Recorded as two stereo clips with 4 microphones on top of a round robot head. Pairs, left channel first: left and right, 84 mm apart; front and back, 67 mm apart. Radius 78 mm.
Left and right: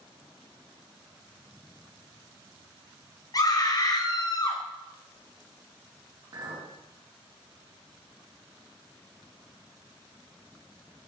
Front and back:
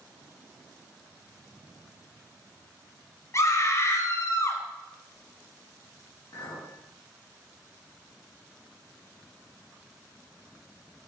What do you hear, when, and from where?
3.3 s a scream: 45° left, 3.5 m; by 4.6 s 50° left, 2.5 m
6.3 s a clink: 55° right, 5 m